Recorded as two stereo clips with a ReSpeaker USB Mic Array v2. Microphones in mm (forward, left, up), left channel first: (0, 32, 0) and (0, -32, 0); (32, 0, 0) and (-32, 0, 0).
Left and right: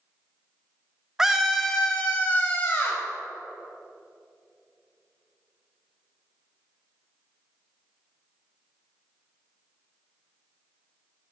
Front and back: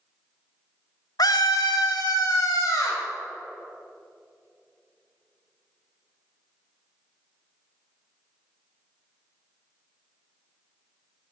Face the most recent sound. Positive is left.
turn(degrees=30)